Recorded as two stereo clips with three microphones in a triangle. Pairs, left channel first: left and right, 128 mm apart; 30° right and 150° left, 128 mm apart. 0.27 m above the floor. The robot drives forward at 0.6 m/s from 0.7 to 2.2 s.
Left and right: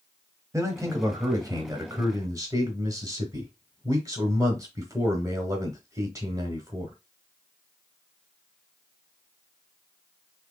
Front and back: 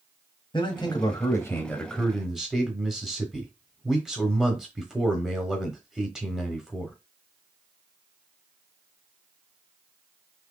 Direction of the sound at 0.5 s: 40° right.